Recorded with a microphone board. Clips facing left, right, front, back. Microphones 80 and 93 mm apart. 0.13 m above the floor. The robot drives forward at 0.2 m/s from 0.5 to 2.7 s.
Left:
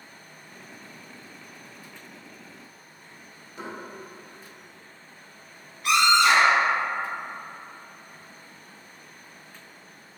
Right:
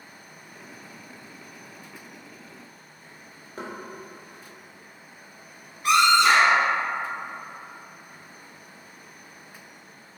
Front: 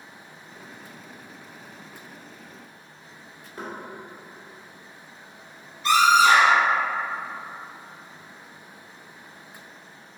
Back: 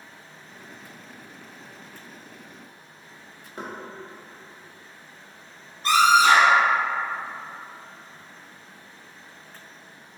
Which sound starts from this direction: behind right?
Knocking, at 3.6 s.